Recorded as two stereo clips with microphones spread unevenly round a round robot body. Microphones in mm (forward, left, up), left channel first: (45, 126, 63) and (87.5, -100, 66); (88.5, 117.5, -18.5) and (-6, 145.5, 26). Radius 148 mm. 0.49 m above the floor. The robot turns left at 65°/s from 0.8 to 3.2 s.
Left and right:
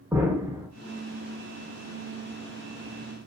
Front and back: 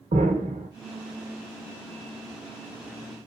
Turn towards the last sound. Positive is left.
turn(degrees=45)